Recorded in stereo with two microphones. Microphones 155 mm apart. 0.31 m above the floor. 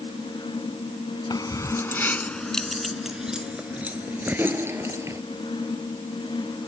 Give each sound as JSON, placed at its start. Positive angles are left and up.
{"t": 1.3, "sound": "keys jangling", "side_deg": 25}